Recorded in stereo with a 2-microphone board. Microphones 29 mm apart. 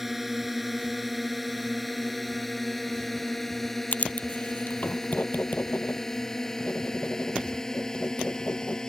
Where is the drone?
5° right (ahead or behind); by 8.9 s 20° left (ahead or behind).